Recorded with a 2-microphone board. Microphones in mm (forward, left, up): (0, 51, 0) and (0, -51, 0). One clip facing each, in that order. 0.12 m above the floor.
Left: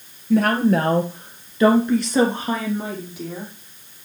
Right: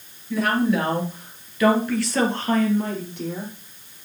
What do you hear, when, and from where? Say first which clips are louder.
0.3 s a woman speaking: left 4 dB; 55° left (ahead or behind), 2.5 m; by 3.5 s centre (ahead or behind), 4 m